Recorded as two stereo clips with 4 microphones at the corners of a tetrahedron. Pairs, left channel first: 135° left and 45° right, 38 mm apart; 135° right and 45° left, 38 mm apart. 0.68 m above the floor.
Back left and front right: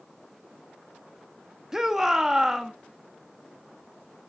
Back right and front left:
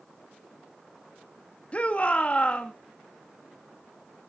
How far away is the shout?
About 0.9 m.